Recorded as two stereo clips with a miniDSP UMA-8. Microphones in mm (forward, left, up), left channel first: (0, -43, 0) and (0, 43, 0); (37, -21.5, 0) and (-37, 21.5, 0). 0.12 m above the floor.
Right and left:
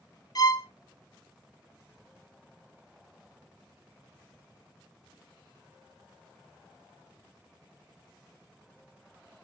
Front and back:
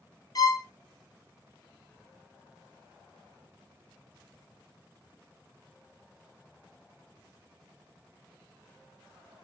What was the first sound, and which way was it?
A violin, 60° right.